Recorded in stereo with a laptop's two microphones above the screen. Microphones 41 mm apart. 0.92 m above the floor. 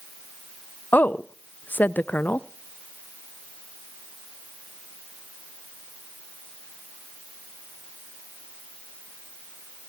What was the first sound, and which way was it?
A woman speaking, 50° left (ahead or behind).